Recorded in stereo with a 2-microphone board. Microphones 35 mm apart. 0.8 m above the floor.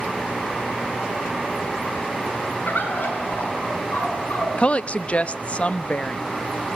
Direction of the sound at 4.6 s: 35° left (ahead or behind).